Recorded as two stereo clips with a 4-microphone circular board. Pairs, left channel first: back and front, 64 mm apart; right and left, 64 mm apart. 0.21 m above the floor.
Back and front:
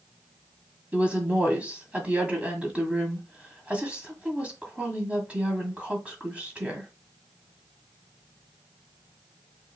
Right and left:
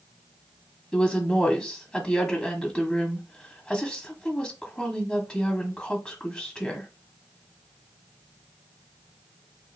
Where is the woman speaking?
30° right, 1.5 m.